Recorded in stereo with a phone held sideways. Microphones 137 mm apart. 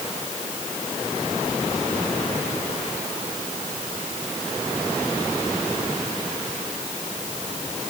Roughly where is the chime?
I don't hear a chime.